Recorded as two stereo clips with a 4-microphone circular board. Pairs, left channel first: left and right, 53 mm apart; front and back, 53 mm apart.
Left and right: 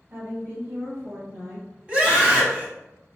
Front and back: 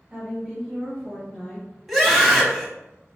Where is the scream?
95° right, 1.1 m.